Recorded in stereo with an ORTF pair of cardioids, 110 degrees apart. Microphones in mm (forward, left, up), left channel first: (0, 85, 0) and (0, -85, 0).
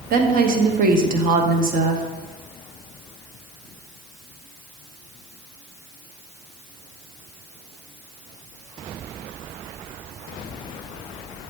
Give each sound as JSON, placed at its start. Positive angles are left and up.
{"t": 0.1, "sound": "a woman speaking", "azimuth_deg": -55, "distance_m": 1.1}